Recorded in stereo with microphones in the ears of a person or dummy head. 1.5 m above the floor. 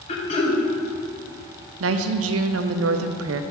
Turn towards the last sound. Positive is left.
turn(degrees=-80)